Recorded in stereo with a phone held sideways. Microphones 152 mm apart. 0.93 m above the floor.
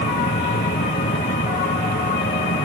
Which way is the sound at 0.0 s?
85° left.